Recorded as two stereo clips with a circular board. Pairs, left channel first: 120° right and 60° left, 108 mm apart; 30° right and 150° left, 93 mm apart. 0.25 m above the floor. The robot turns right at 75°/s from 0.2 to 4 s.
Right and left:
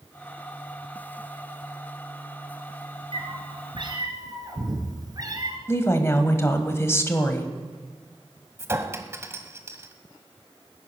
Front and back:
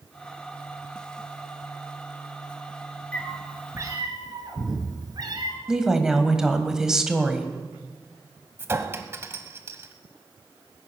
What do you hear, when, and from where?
3.1 s a cat meowing: 45° left, 2.5 m; by 5.6 s 110° left, 2.5 m
5.7 s a woman speaking: 135° right, 1.4 m
8.6 s a clink: 105° left, 1.1 m